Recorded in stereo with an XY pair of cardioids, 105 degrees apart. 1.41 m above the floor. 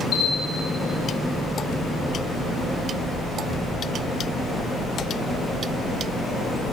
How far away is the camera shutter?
About 6.5 m.